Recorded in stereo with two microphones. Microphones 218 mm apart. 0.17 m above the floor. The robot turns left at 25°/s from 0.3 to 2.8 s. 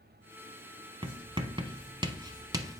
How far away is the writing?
About 0.8 m.